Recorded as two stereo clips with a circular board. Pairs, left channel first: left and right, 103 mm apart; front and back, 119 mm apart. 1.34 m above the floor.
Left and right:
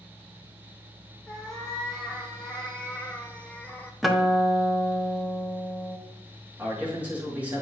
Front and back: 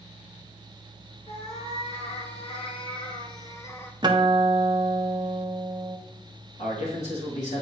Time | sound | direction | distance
1.3 | a cat meowing | 5° left | 1.7 m
4.0 | a guitar | straight behind | 0.6 m
6.6 | a man speaking | 15° right | 2.5 m